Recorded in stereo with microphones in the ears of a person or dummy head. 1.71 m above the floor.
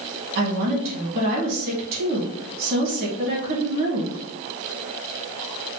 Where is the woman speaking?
55° right (ahead or behind), 2 m.